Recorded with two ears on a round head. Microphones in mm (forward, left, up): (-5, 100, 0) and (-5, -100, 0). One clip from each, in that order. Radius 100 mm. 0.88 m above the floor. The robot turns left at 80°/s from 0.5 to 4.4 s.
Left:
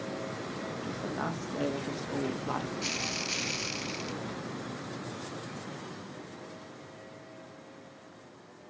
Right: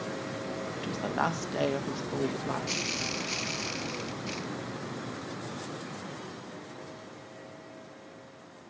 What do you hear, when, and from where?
0.8 s a woman speaking: 60° right, 0.8 m; by 2.8 s 140° left, 0.8 m